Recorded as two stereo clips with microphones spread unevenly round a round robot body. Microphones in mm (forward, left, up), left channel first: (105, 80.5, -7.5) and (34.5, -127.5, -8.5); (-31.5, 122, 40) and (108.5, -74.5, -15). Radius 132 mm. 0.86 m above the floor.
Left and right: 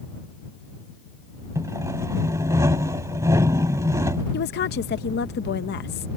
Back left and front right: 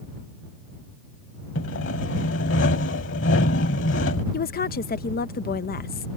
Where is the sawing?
170° left.